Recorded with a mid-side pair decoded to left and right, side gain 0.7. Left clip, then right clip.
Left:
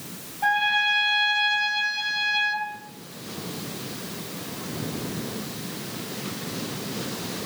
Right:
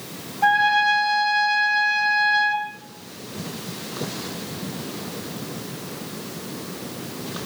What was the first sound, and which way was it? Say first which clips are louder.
A trumpet: right 4 dB; 40° right.